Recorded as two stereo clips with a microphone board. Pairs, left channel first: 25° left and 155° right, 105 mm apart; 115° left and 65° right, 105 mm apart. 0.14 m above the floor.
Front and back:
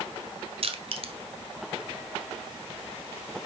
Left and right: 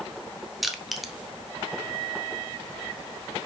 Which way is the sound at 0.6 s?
155° right.